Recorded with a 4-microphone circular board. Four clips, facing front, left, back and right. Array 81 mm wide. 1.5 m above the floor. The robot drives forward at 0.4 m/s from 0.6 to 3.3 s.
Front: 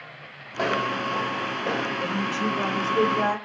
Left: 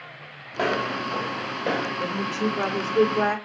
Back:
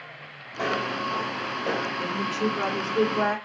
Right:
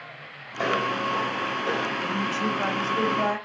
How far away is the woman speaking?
About 4 m.